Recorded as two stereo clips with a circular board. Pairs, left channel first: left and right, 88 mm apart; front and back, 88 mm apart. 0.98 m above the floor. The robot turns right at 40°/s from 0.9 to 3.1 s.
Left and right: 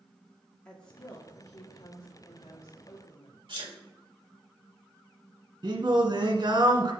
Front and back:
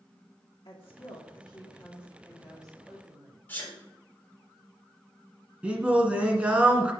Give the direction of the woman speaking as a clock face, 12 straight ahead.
12 o'clock.